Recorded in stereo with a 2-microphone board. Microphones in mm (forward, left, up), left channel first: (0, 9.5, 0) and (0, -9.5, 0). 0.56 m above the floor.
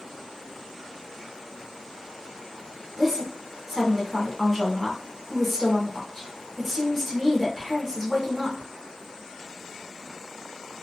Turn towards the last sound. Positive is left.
turn(degrees=-5)  # may be behind; listen again after turning